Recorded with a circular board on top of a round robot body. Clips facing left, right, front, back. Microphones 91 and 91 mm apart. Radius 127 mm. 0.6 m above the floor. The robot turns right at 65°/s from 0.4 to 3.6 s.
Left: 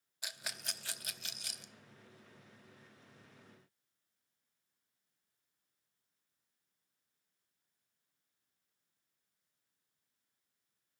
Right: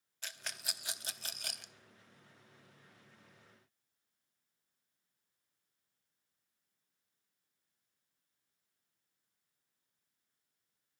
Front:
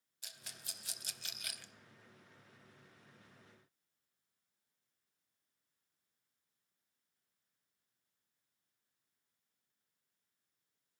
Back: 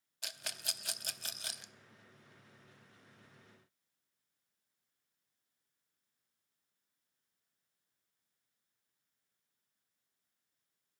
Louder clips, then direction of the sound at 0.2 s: Even, back 9 dB; 170° left.